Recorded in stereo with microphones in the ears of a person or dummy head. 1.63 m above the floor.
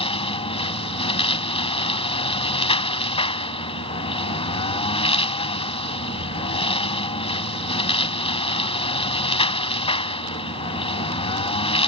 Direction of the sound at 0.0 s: 25° left (ahead or behind).